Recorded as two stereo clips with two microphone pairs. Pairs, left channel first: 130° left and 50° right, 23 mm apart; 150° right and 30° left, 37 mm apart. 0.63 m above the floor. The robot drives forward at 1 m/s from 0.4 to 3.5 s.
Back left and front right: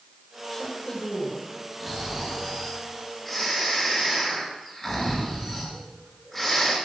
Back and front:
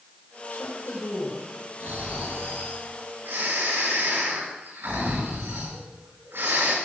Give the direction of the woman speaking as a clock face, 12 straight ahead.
5 o'clock.